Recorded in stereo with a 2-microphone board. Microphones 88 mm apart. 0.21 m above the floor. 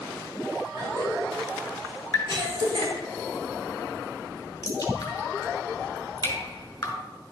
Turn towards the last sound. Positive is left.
turn(degrees=35)  # may be behind; listen again after turning